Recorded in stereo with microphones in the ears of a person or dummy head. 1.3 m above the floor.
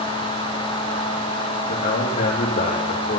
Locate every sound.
1.7 s a man speaking: 35° left (ahead or behind), 2 m